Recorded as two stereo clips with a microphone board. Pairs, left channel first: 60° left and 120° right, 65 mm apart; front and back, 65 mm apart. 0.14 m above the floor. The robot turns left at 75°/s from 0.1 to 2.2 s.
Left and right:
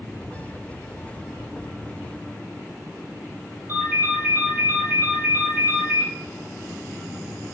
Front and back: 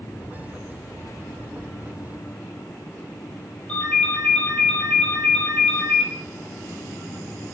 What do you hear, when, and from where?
3.7 s a ringtone: 70° right, 3.5 m